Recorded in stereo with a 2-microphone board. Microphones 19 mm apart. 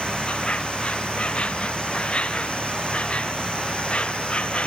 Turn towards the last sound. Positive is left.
turn(degrees=75)  # may be behind; listen again after turning